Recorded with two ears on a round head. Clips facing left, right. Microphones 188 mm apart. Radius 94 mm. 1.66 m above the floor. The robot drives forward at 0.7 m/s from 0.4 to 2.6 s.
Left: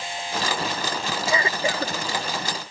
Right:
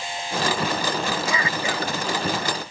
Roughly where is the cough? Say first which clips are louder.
Left 1 dB; left.